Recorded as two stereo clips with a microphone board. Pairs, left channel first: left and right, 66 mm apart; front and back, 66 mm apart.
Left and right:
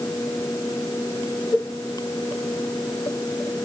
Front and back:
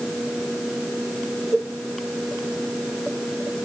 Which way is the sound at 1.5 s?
115° left.